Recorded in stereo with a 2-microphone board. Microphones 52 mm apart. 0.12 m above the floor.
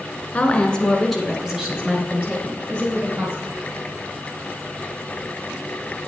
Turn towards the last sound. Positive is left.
turn(degrees=-45)  # may be behind; listen again after turning